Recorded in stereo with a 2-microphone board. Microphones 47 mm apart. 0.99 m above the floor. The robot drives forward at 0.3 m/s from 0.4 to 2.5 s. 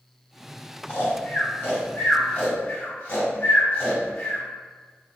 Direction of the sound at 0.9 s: 45° left (ahead or behind).